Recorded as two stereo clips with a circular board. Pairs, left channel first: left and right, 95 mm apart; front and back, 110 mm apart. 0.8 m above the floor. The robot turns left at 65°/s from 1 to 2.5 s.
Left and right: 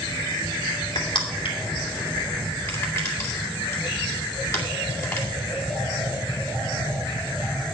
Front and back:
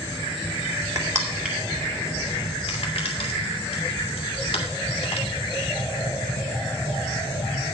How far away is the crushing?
About 2.5 m.